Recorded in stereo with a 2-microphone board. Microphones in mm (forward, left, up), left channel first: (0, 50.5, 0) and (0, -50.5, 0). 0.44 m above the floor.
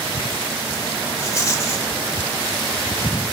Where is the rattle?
30° left (ahead or behind), 1.9 m.